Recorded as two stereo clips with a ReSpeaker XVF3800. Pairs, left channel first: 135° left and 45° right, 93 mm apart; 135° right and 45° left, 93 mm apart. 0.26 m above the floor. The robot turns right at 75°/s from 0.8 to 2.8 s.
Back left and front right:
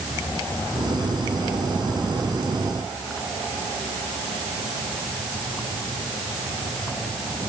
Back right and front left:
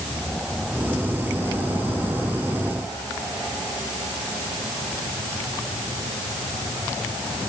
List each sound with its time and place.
Only background noise.